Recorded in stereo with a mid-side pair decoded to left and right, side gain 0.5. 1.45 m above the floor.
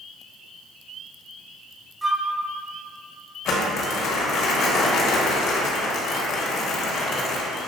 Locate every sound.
2.0 s a flute: 5° right, 0.5 m
3.5 s crumpling: 65° left, 1.2 m